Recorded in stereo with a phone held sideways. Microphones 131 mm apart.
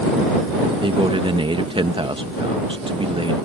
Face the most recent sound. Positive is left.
turn(degrees=-40)  # may be behind; listen again after turning